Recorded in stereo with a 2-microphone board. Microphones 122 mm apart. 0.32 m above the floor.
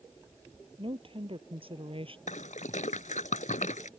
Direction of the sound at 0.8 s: 50° right (ahead or behind).